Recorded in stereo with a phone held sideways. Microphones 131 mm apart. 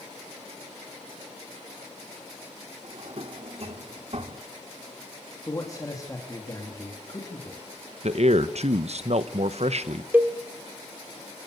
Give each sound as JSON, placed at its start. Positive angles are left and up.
{"t": 2.8, "sound": "a drawer", "side_deg": -50, "distance_m": 1.5}
{"t": 5.5, "sound": "a man speaking", "side_deg": 30, "distance_m": 3.0}
{"t": 8.0, "sound": "a man speaking", "side_deg": -60, "distance_m": 1.1}
{"t": 10.1, "sound": "a cowbell", "side_deg": -15, "distance_m": 1.6}